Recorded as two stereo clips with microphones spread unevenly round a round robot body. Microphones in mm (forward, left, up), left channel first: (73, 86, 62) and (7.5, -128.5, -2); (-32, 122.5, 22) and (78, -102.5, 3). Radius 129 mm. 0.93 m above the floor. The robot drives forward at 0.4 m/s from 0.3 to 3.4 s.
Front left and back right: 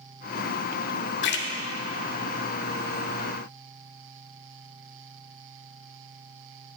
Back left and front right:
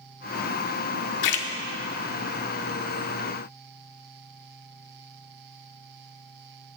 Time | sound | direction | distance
1.2 | a splash | 120° left | 0.6 m